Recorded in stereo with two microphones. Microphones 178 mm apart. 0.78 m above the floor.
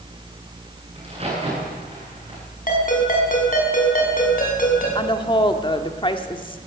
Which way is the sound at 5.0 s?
30° left (ahead or behind).